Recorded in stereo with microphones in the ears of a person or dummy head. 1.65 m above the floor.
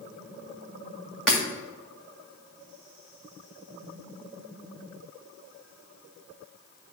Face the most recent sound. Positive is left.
turn(degrees=5)  # may be behind; listen again after turning